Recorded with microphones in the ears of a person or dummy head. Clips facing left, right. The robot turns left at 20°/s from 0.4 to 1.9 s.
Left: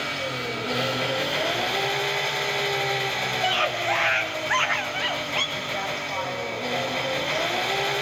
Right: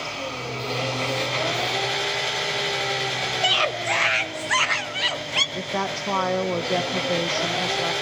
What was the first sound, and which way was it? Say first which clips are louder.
An engine running: left 1 dB; 30° left.